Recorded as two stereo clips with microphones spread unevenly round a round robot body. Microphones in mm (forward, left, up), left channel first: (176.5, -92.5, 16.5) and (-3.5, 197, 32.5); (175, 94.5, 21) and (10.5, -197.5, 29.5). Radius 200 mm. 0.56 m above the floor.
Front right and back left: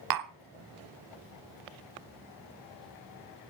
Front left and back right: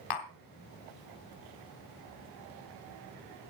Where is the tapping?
100° left, 1.2 m.